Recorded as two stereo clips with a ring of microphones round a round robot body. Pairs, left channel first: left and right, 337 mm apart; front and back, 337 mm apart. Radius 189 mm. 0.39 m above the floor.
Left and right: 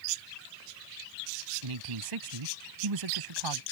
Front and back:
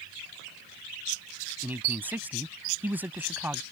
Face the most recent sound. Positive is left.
turn(degrees=-95)